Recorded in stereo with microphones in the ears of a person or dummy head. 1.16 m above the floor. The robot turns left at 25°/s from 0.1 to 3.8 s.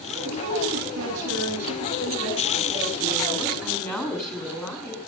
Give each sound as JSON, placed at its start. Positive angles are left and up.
{"t": 0.2, "sound": "a woman speaking", "azimuth_deg": -90, "distance_m": 8.0}